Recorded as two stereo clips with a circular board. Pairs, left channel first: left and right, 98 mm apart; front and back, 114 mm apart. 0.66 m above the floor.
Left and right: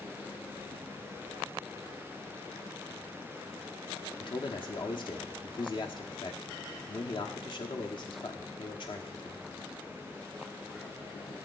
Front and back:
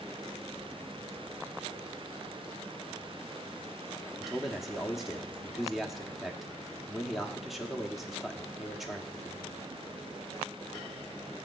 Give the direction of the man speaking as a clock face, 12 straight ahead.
9 o'clock.